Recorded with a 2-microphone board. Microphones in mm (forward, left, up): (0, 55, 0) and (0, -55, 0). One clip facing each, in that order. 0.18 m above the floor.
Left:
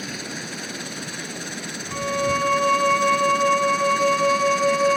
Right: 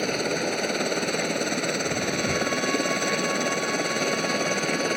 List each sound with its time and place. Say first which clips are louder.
0.0 s a helicopter: right 8 dB; 60° right (ahead or behind); by 5.0 s 55° right (ahead or behind)
1.9 s a violin: left 3 dB; 60° left (ahead or behind)